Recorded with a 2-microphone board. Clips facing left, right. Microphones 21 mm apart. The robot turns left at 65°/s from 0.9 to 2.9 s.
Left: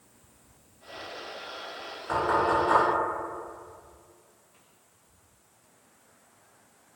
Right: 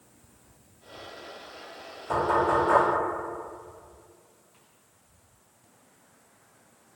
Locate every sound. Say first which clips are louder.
2.1 s knocking: right 1 dB; 40° left (ahead or behind), 1.7 m; by 2.8 s 10° right (ahead or behind), 1.7 m